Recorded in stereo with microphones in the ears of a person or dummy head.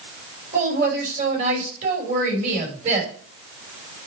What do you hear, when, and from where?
0.5 s a woman speaking: 50° right (ahead or behind), 6 m